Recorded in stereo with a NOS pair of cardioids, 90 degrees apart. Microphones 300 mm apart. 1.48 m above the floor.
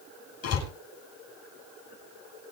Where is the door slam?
55° left, 10 m.